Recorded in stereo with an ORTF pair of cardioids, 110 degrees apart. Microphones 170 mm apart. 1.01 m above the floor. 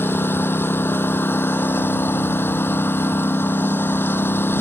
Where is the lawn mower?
15° left.